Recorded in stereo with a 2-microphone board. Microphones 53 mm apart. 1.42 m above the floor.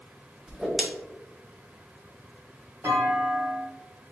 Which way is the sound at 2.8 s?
60° right (ahead or behind).